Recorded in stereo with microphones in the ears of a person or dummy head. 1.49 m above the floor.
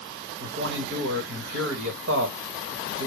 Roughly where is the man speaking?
Right.